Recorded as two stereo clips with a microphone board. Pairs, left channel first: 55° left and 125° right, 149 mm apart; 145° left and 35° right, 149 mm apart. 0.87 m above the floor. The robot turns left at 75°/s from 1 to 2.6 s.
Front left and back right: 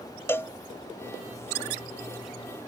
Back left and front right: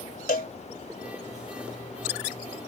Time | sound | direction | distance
0.3 | a cowbell | 130° left | ?